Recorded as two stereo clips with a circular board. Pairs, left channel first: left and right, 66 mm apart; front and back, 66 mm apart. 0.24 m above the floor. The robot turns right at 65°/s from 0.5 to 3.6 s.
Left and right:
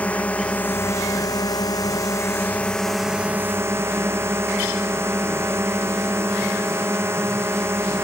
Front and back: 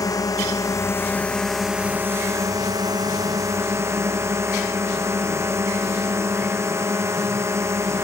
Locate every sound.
0.0 s a drone: 20° left; by 8.0 s 135° right